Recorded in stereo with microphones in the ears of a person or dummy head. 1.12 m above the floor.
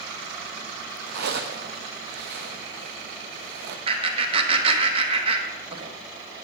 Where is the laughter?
35° right (ahead or behind), 1.2 m.